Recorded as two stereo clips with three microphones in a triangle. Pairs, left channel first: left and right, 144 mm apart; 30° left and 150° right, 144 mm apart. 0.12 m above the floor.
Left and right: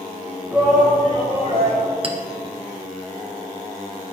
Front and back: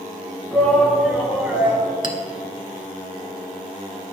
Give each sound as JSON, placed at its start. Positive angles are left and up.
{"t": 0.5, "sound": "a shout", "azimuth_deg": -35, "distance_m": 1.4}
{"t": 2.0, "sound": "a clink", "azimuth_deg": -115, "distance_m": 0.8}